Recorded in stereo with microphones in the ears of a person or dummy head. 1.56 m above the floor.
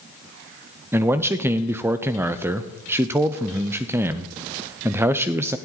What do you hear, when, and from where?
0.9 s a man speaking: 15° right (ahead or behind), 0.6 m